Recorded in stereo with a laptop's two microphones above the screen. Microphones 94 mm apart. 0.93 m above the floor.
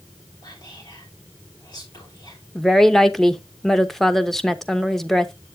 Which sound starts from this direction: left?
Whispering, at 0.4 s.